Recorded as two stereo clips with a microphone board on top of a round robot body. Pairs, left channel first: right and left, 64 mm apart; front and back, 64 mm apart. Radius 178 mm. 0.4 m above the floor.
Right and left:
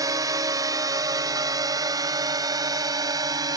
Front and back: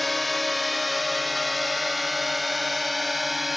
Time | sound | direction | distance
0.0 | a drone | 85° left | ?